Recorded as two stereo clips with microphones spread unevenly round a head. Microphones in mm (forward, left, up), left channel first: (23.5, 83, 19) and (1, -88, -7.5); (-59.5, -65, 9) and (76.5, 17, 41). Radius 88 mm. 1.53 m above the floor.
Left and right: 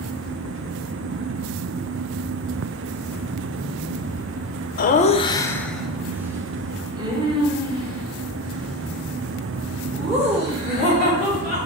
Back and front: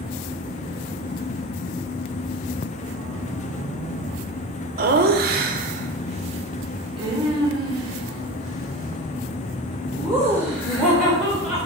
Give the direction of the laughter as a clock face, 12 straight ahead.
10 o'clock.